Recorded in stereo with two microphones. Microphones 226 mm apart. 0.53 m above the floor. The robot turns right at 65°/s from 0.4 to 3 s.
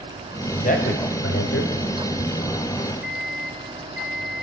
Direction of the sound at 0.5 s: 25° left (ahead or behind).